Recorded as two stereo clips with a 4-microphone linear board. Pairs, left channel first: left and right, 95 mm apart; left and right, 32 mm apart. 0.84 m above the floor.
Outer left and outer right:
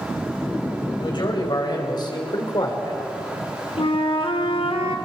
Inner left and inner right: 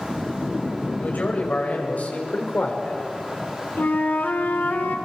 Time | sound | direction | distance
1.0 | a man speaking | 55° left (ahead or behind) | 5 m
3.8 | a flute | 75° left (ahead or behind) | 2 m